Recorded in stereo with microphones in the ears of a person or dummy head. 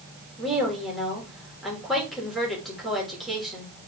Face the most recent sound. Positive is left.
turn(degrees=0)  # may be behind; listen again after turning